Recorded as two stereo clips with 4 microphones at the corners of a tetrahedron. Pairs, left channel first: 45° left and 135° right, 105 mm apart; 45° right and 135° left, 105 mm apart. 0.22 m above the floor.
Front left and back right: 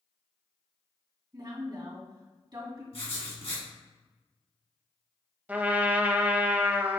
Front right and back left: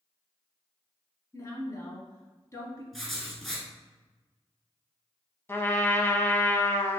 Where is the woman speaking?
95° right, 1.9 m.